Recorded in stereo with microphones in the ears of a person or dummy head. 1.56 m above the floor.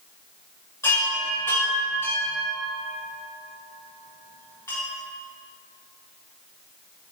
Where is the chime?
15° left (ahead or behind), 2.0 m.